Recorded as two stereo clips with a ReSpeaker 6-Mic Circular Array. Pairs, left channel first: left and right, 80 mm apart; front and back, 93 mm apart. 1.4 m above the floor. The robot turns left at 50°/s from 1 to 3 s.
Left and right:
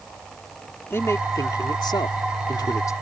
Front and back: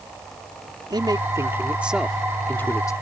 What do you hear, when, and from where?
0.9 s a man speaking: 145° left; by 2.9 s 50° left